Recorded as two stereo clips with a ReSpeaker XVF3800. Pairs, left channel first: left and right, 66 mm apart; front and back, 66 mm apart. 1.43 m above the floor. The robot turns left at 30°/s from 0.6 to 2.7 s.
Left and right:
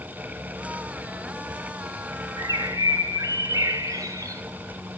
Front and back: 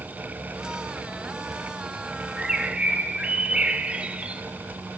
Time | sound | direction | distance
2.4 | a bird | 95° right | 0.6 m